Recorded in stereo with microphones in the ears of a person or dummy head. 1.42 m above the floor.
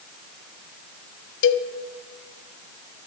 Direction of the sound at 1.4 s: 65° left (ahead or behind).